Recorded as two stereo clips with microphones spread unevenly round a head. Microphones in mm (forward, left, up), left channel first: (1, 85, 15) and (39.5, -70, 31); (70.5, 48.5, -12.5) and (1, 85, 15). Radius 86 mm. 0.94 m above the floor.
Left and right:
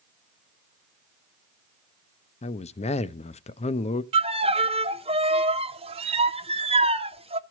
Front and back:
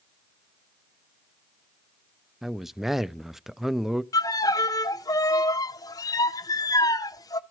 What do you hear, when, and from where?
2.4 s a man speaking: 60° left, 0.5 m
4.1 s a violin: 20° right, 0.6 m